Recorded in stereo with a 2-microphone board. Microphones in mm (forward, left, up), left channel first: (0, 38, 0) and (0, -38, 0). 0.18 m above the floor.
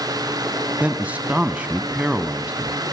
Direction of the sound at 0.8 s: 20° right (ahead or behind).